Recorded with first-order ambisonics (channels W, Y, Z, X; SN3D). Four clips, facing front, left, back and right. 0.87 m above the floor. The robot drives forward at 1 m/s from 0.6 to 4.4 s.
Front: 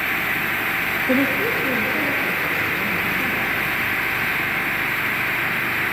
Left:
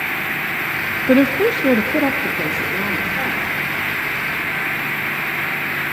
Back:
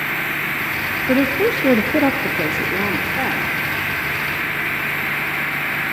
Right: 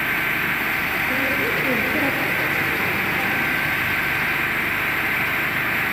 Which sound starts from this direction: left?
A woman speaking, at 1.1 s.